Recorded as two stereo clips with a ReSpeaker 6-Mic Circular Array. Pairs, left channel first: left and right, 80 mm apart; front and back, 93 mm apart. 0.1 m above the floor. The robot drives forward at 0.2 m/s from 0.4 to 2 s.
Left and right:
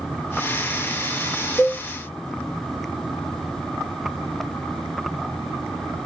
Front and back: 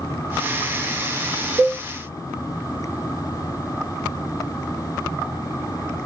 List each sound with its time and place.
1.6 s a cowbell: 175° right, 6 m